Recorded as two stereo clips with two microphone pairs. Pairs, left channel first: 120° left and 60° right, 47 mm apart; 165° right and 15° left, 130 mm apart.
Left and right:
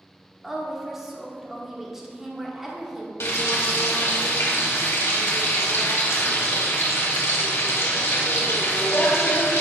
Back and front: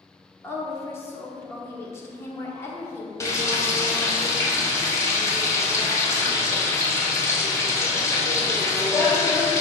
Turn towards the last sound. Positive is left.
turn(degrees=130)